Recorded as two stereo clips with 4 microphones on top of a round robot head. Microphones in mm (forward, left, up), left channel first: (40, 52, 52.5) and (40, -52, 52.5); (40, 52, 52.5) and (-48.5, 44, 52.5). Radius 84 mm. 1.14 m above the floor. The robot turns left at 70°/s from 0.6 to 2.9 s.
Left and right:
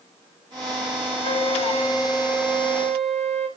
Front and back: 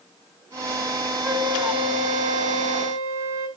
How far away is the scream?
No scream in this recording.